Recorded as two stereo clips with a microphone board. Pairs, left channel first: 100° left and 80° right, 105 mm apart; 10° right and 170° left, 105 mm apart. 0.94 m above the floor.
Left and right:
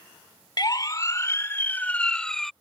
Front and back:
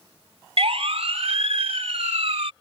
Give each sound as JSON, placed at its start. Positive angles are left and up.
{"t": 0.6, "sound": "a siren", "azimuth_deg": 145}